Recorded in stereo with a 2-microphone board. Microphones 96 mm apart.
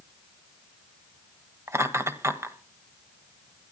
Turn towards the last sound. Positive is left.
turn(degrees=-30)  # may be behind; listen again after turning